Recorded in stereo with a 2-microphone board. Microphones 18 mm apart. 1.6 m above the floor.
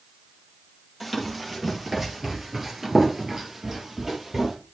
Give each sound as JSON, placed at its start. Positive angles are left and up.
{"t": 1.0, "sound": "running footsteps", "side_deg": -5, "distance_m": 2.5}